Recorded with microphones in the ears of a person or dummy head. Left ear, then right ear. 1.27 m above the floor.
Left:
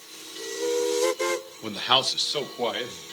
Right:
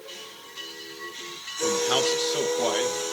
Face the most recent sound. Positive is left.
turn(degrees=0)  # may be behind; listen again after turning